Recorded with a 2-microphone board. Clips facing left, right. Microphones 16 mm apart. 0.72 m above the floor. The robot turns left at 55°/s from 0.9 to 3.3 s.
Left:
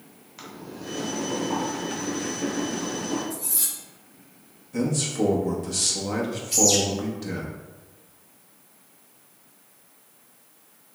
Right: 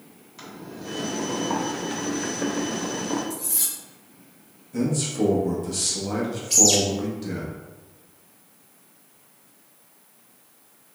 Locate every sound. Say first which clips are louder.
0.4 s boiling: even; 10° left, 0.9 m; by 3.2 s 115° right, 0.9 m
3.3 s cutlery clinking: even; 65° right (ahead or behind), 1.8 m
4.7 s a man speaking: right 1 dB; 10° left (ahead or behind), 0.8 m
6.5 s a bird: right 2 dB; 65° right (ahead or behind), 1.6 m